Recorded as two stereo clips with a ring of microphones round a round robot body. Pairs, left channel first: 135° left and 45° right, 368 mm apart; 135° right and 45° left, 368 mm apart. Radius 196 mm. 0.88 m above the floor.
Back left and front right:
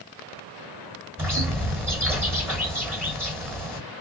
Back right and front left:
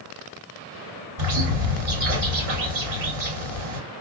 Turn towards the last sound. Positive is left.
turn(degrees=40)